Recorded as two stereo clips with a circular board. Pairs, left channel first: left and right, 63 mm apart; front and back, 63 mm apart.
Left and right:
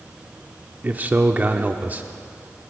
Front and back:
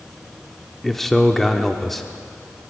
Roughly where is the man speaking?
Right.